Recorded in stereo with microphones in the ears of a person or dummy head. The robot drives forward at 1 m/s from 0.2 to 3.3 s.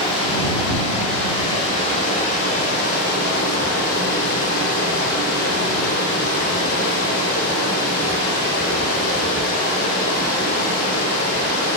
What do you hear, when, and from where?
0.0 s running water: 30° left (ahead or behind), 5.5 m; by 11.8 s 55° left (ahead or behind), 3 m